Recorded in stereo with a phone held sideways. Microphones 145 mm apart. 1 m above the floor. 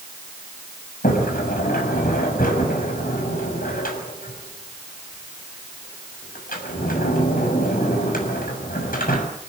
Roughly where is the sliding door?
Left.